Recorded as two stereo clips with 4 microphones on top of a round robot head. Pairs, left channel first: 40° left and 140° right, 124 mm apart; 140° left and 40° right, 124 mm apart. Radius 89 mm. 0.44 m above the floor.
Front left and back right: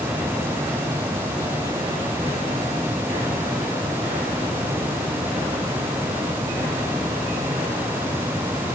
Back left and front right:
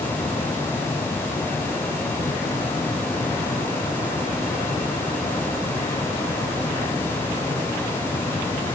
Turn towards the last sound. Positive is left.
No sound to turn to.